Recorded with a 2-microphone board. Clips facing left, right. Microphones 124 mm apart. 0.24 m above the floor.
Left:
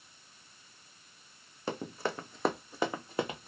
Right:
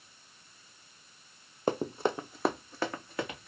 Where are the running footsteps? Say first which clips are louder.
Right 6 dB; 45° right (ahead or behind), 0.7 m; by 3.5 s 30° left (ahead or behind), 1.2 m.